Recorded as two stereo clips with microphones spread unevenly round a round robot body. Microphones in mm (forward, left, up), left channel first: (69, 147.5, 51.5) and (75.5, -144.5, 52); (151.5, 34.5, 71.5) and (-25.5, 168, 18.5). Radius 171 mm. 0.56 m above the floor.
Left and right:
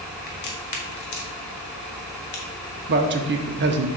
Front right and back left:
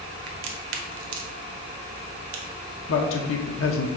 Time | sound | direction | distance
0.3 | a crack | 150° left | 1.0 m
2.9 | a man speaking | 50° right | 0.9 m